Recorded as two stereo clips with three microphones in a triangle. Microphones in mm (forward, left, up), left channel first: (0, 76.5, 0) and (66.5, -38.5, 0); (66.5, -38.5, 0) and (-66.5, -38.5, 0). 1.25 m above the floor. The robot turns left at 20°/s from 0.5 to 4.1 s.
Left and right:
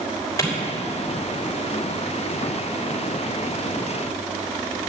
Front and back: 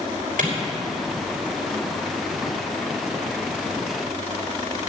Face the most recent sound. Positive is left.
turn(degrees=115)